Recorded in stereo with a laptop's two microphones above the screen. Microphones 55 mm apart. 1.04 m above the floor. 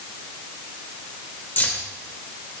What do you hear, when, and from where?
1.6 s keys jangling: 35° left (ahead or behind), 2.5 m